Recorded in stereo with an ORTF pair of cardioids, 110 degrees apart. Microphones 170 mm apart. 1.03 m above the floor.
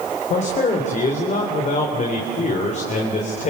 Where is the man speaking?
45° left, 4 m.